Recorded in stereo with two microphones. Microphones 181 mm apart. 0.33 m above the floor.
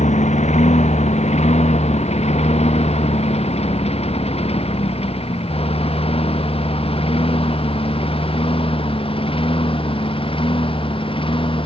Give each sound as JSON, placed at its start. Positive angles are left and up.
{"t": 0.0, "sound": "a lawn mower", "side_deg": 40}